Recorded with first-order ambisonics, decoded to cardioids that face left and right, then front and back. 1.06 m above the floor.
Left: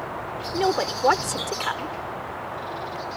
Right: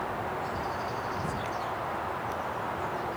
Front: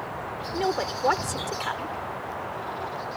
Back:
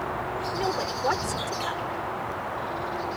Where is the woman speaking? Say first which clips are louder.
Left 9 dB, front 4 dB; 75° left.